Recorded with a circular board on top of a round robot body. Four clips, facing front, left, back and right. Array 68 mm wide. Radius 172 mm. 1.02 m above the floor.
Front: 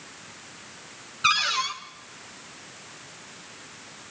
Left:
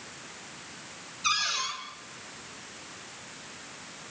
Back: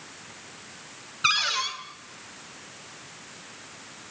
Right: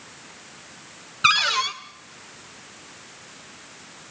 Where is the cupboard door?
90° right, 2.0 m.